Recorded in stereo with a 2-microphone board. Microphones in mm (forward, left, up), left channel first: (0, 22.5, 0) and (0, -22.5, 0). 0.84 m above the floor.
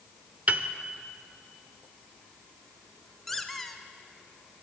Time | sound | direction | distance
0.5 | a piano | 35° right (ahead or behind) | 1.0 m
3.3 | a squeak | 5° left (ahead or behind) | 1.5 m